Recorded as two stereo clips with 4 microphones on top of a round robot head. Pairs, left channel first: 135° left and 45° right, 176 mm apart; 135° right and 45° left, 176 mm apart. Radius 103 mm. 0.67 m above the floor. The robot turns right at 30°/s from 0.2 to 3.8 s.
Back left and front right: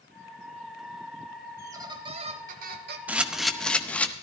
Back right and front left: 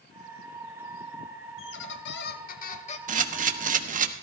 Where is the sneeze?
No sneeze in this recording.